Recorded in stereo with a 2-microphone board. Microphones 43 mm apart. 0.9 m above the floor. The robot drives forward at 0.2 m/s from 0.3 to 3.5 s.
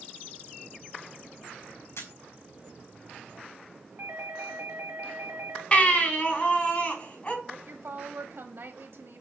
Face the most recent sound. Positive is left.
turn(degrees=-65)  # may be behind; listen again after turning